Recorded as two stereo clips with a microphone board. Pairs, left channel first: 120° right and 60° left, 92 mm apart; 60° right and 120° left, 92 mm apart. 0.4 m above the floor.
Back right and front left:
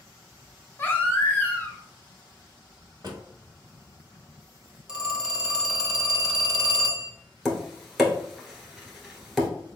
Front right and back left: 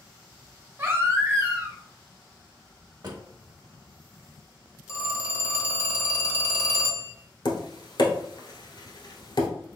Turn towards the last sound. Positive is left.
turn(degrees=-30)